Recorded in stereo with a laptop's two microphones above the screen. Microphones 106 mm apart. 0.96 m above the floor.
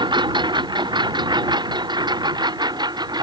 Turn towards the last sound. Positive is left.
turn(degrees=-40)  # may be behind; listen again after turning